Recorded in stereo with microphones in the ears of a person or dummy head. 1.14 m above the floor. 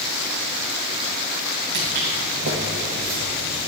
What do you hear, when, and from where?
1.7 s footsteps: 55° right (ahead or behind), 3.5 m; by 3.7 s 50° right (ahead or behind), 2.5 m